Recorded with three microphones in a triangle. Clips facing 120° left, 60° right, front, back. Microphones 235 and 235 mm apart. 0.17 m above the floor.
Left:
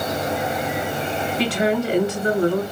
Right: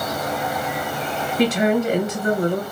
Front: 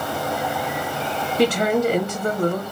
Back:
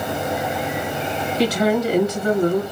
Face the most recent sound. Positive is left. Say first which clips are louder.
# right 4 dB, even
turn(degrees=5)